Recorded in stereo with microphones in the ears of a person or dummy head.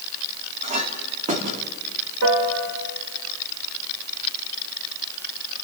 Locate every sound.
0.6 s a clink: 35° right (ahead or behind), 2.5 m
2.2 s a piano: 75° right (ahead or behind), 3 m